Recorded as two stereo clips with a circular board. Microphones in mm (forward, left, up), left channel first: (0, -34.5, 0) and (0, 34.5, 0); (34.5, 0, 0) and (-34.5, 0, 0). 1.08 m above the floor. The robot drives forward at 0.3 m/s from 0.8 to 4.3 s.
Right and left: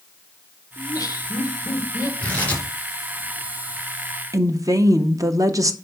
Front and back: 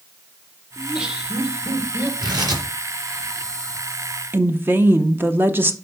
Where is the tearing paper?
155° right, 2.5 m; by 2.6 s 160° right, 3 m.